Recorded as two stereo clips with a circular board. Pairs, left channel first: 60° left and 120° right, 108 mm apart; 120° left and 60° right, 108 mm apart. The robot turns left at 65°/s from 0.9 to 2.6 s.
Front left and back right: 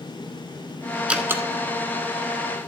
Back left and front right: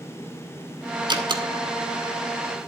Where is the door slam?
40° right, 1.1 m; by 2.7 s 140° right, 1.1 m.